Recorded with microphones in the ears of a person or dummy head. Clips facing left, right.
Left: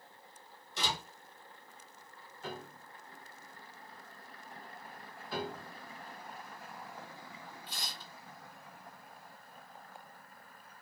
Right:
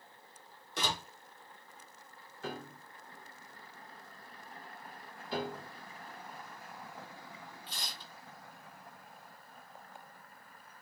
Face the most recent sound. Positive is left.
turn(degrees=-50)  # may be behind; listen again after turning